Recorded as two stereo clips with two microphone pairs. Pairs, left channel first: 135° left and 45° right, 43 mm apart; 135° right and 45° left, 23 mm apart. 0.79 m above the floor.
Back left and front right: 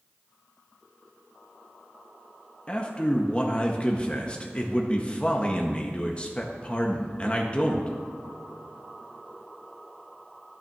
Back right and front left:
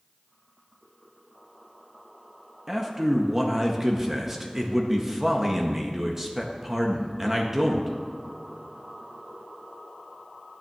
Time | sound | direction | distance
2.7 | a man speaking | 105° left | 0.7 m